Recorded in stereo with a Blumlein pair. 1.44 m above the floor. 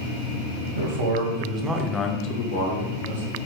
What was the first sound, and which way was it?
A man speaking, 60° right.